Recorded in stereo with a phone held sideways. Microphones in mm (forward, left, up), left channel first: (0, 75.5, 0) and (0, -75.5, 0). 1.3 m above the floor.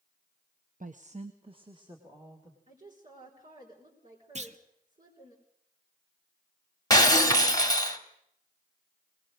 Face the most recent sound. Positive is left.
turn(degrees=25)  # may be behind; listen again after turning